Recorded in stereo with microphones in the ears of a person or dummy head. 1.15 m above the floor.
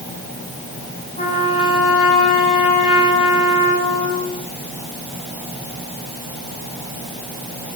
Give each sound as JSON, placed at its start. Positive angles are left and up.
{"t": 1.2, "sound": "a trumpet", "side_deg": 40, "distance_m": 9.5}